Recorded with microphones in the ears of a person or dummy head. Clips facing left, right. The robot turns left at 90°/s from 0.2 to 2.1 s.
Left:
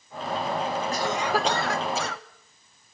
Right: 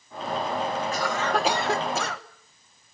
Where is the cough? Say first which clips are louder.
Left 1 dB; 45° left, 2 m; by 2.2 s 60° right, 2 m.